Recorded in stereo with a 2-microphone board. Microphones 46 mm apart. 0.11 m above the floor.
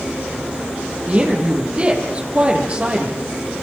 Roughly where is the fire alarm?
No fire alarm in this recording.